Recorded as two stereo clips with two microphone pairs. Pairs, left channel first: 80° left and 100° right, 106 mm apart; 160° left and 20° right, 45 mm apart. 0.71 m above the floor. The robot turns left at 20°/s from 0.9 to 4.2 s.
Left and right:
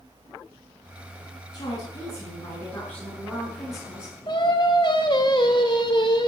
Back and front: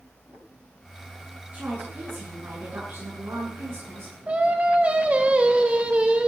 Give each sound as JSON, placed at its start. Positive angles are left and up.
{"t": 1.5, "sound": "a woman speaking", "azimuth_deg": 30, "distance_m": 8.0}
{"t": 4.3, "sound": "singing", "azimuth_deg": 40, "distance_m": 2.5}